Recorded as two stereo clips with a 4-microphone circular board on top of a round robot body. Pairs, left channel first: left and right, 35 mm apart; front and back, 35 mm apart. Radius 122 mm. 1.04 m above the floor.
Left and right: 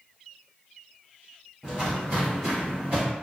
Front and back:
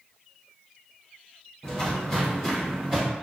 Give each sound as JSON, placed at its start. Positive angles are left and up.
{"t": 1.6, "sound": "footsteps", "azimuth_deg": -30, "distance_m": 1.1}